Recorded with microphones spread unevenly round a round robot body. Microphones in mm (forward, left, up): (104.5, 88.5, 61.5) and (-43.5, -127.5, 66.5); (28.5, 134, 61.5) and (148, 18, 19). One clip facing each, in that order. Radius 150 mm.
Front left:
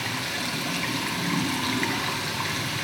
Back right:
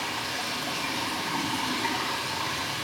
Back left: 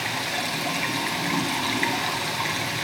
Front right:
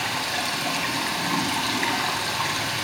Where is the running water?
65° left, 2.5 m.